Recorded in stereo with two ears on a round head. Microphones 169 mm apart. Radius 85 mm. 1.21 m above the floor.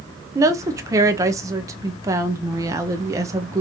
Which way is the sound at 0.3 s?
15° right (ahead or behind).